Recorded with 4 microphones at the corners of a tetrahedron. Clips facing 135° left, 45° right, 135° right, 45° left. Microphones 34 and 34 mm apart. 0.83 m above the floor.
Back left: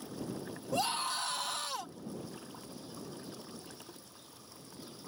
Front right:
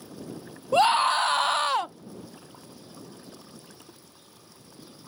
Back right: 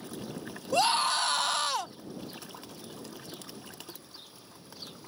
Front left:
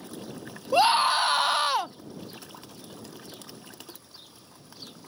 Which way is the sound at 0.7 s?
20° right.